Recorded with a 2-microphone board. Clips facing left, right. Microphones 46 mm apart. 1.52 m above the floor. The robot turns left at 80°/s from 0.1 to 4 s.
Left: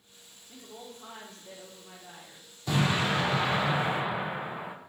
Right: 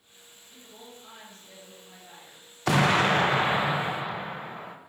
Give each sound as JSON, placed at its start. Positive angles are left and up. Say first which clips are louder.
{"t": 0.5, "sound": "a woman speaking", "louder": "left 3 dB", "azimuth_deg": 145, "distance_m": 1.8}
{"t": 2.7, "sound": "an explosion", "louder": "right 6 dB", "azimuth_deg": -85, "distance_m": 0.7}